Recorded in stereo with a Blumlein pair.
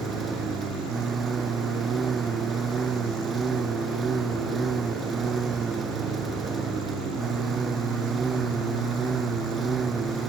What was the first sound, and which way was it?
A lawn mower, 20° right.